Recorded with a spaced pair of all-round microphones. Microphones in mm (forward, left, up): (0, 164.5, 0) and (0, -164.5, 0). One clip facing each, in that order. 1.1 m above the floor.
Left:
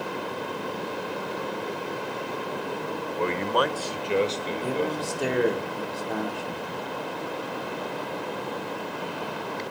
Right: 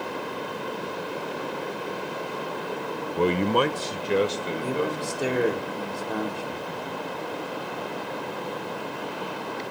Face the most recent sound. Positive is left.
turn(degrees=-5)  # may be behind; listen again after turning